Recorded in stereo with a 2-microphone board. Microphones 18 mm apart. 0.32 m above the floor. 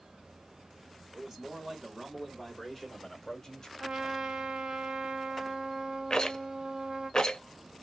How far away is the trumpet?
About 0.8 m.